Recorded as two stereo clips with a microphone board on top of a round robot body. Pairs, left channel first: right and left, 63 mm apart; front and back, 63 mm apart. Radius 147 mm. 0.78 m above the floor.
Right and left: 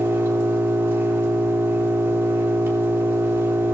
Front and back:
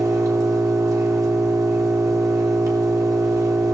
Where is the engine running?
145° left, 3 m.